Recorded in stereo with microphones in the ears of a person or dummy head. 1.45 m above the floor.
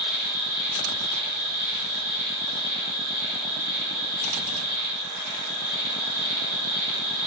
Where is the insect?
75° right (ahead or behind), 7.5 m.